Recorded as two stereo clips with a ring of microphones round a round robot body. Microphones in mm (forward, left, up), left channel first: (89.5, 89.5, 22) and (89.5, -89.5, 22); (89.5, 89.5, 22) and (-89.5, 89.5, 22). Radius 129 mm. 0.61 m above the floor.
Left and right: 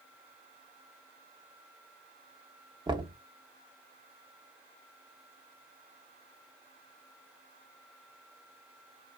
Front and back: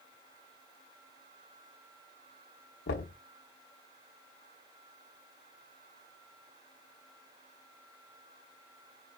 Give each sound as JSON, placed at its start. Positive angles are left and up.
{"t": 2.9, "sound": "knocking", "azimuth_deg": -25, "distance_m": 1.0}